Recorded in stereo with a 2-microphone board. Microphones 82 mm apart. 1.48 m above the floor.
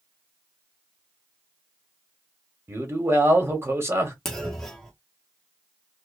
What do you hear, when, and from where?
2.7 s a man speaking: 30° right (ahead or behind), 0.9 m
4.2 s a clunk: 5° left (ahead or behind), 0.6 m